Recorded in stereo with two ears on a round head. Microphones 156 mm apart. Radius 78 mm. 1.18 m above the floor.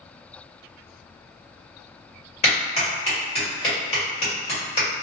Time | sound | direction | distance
2.4 | a clap | 35° left (ahead or behind) | 1.5 m